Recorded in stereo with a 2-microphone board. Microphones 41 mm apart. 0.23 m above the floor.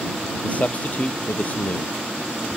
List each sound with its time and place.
0.4 s a man speaking: 40° left (ahead or behind)